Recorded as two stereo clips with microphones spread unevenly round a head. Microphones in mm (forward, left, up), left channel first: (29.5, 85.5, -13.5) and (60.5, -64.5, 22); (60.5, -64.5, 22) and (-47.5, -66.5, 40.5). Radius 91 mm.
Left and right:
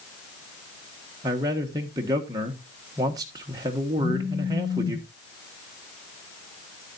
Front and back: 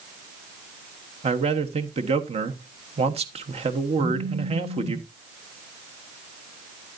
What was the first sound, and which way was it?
A man speaking, 155° right.